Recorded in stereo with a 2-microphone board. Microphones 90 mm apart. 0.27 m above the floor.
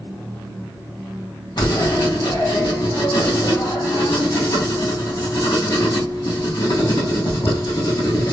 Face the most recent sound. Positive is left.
turn(degrees=55)  # may be behind; listen again after turning